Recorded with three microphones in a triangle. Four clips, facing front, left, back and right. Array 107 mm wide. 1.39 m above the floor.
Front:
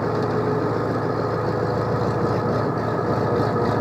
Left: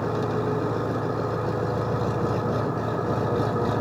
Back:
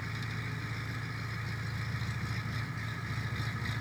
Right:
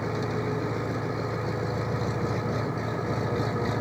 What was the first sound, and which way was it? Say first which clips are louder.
An engine running: left 4 dB, front 21 dB; 15° left.